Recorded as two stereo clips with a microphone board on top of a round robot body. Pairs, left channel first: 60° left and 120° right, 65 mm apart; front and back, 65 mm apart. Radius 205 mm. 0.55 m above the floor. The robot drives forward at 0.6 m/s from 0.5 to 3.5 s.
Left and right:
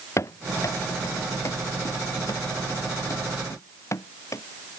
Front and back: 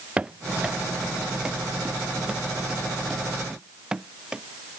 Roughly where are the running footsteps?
Left.